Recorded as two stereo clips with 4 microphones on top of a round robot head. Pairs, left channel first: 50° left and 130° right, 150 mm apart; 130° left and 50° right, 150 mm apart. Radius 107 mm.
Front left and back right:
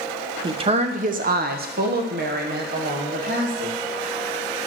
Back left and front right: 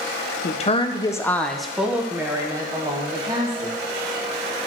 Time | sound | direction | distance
0.4 | a woman speaking | 170° left | 0.9 m